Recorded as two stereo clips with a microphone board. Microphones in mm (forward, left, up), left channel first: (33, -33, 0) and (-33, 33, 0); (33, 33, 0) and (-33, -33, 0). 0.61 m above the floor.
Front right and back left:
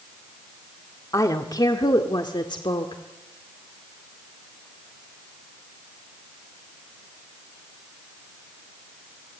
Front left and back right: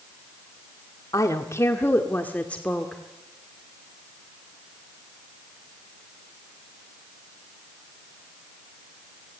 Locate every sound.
1.1 s a woman speaking: straight ahead, 1.7 m; by 3.0 s 35° right, 1.9 m